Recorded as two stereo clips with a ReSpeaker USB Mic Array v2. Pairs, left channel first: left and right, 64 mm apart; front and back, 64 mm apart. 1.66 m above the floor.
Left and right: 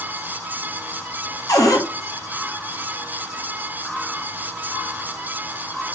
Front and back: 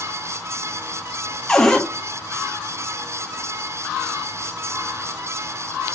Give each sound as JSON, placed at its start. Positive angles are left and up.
{"t": 1.5, "sound": "a cupboard door", "azimuth_deg": 80, "distance_m": 0.8}